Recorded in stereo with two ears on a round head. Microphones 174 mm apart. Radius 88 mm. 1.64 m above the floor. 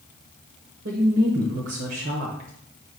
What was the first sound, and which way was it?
A woman speaking, 55° right (ahead or behind).